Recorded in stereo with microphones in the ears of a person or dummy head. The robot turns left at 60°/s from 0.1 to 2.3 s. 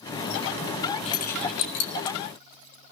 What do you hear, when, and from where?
1.1 s keys jangling: 35° left (ahead or behind), 2 m; by 2.2 s 75° left (ahead or behind), 2 m